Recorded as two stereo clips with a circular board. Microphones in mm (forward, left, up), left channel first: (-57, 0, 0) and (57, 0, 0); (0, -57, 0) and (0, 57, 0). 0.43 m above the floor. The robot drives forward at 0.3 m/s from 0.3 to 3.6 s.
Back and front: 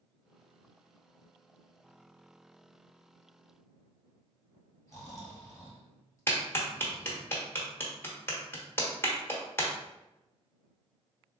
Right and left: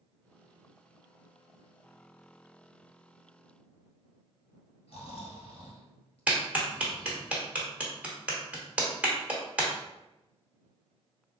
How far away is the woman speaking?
I don't hear a woman speaking.